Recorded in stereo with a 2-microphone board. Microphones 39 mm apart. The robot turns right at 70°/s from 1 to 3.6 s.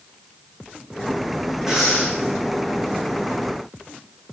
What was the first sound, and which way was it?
Breathing, 20° right.